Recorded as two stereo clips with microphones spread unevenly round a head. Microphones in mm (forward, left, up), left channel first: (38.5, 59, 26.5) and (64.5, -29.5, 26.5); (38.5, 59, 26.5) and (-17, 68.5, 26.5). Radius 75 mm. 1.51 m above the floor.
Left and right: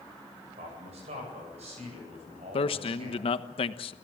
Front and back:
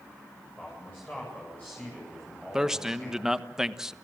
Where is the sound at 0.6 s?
90° right, 8.5 m; by 3.4 s 85° right, 11.5 m.